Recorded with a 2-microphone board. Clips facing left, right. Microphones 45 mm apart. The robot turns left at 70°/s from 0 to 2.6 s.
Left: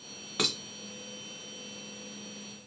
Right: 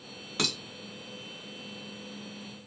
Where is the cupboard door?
No cupboard door in this recording.